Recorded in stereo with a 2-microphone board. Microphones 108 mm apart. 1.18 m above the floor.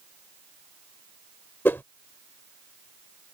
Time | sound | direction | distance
1.6 | a whoosh | 20° left (ahead or behind) | ?